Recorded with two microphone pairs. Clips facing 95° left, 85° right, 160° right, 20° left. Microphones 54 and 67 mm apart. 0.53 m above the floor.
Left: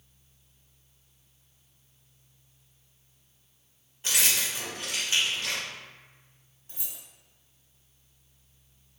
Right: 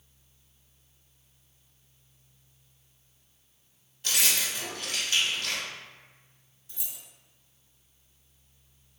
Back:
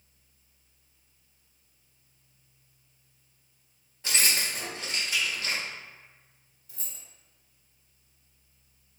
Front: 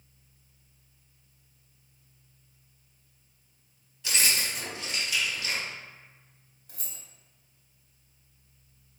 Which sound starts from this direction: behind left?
Keys jangling, at 4.0 s.